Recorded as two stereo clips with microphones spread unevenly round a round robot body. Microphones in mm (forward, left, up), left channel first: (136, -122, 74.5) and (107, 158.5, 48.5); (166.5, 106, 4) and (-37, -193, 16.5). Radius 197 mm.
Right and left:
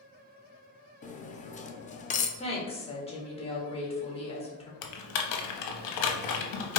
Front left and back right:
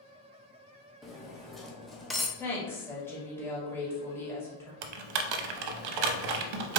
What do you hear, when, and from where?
1.0 s cutlery clinking: 30° right, 0.6 m
2.4 s a woman speaking: 20° right, 1.5 m
4.8 s typing on a keyboard: 95° right, 0.6 m